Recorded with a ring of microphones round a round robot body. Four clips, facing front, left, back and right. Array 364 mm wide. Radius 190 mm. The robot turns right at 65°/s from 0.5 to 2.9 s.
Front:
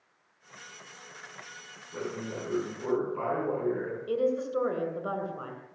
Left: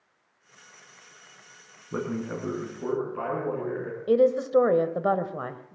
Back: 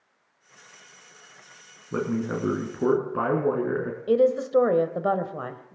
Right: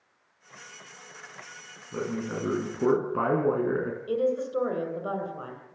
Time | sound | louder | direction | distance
1.9 | a man speaking | left 1 dB, back 9 dB | 155° left | 4.5 m
4.1 | a woman speaking | left 7 dB, back 8 dB | 135° left | 2.5 m